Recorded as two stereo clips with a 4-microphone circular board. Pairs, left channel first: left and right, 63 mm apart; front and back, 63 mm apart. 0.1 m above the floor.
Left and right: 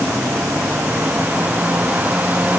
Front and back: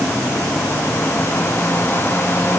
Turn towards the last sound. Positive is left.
No sound to turn to.